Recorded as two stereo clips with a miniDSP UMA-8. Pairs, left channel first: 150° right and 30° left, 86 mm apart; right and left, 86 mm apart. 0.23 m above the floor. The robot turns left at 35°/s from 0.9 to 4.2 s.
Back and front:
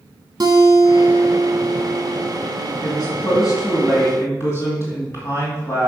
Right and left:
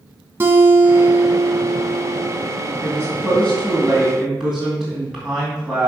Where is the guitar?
35° left, 1.2 m; by 2.3 s 15° right, 1.2 m.